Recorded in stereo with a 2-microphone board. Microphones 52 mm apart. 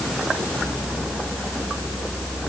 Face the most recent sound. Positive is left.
No sound to turn to.